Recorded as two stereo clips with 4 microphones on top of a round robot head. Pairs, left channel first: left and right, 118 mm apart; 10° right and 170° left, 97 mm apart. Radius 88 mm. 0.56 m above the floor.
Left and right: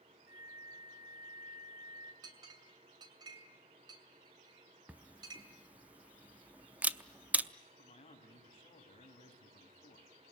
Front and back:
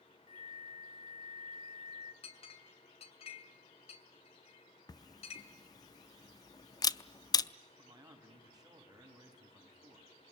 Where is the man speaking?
125° left, 5.5 m.